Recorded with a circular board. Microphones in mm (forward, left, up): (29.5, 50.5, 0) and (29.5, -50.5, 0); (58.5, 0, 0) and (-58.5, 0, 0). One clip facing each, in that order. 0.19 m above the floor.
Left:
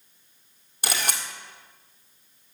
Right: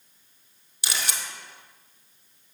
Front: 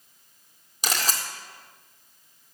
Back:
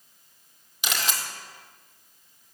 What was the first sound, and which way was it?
A camera shutter, 50° left.